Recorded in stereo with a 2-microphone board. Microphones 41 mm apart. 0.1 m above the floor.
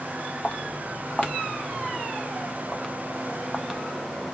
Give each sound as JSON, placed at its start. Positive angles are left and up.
{"t": 0.4, "sound": "footsteps", "side_deg": 35, "distance_m": 3.0}